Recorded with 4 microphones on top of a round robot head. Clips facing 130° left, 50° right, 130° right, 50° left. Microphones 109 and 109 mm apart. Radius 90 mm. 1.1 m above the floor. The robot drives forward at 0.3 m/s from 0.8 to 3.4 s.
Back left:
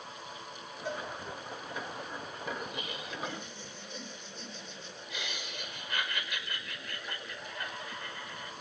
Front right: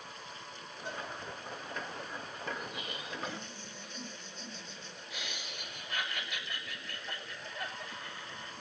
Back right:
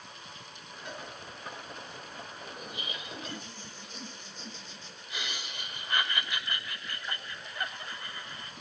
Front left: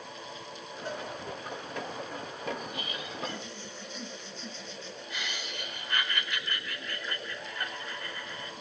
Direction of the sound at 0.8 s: 110° left.